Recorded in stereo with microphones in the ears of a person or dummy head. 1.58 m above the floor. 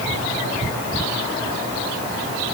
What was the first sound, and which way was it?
Only background noise.